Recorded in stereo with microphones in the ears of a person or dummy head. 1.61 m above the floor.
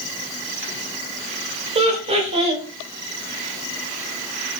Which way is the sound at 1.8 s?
30° right (ahead or behind).